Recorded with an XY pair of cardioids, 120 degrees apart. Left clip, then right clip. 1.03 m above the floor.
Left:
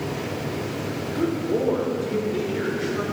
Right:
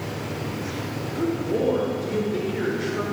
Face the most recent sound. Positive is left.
turn(degrees=-5)